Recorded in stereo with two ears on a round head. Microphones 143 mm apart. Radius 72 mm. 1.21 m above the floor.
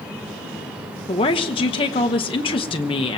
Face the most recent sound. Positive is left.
turn(degrees=30)  # may be behind; listen again after turning